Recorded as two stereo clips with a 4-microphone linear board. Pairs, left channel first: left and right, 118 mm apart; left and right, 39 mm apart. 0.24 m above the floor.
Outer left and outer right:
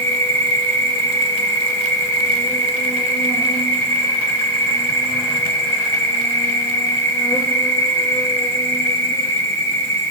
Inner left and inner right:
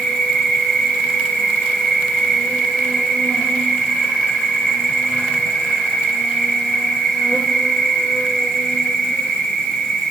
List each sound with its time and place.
0.0 s an insect: 20° left (ahead or behind), 1.4 m